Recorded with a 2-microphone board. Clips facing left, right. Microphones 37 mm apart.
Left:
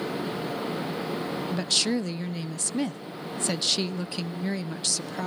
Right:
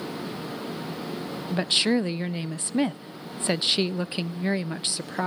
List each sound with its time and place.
1.5 s a woman speaking: 25° right (ahead or behind), 0.5 m